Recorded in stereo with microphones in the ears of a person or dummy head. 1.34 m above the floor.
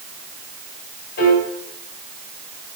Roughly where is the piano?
Left.